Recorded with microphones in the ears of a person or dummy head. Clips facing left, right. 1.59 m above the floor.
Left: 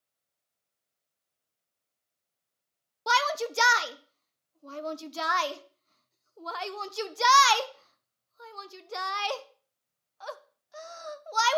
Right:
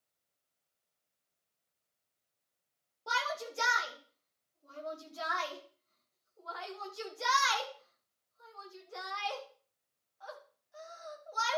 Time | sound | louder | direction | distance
3.1 | a shout | left 9 dB | 85° left | 0.9 m